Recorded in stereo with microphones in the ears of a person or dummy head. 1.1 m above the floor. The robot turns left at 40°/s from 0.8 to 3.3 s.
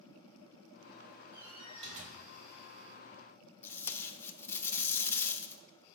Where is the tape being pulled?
10° left (ahead or behind), 0.7 m.